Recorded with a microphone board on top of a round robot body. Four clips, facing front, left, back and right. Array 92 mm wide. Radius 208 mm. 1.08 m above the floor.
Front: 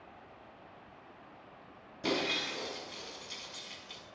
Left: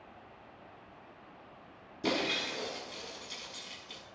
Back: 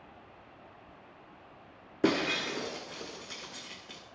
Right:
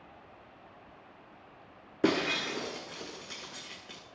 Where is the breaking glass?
130° right, 1.8 m.